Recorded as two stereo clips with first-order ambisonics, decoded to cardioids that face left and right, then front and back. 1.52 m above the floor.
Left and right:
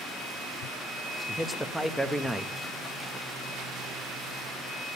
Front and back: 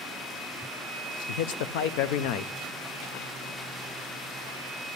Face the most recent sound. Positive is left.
turn(degrees=0)